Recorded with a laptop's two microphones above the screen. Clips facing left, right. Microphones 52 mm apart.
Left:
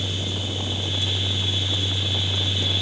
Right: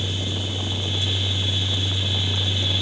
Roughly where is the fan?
Right.